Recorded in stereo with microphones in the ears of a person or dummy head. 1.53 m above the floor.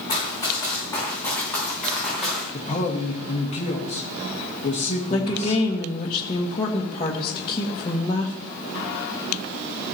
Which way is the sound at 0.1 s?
20° left (ahead or behind).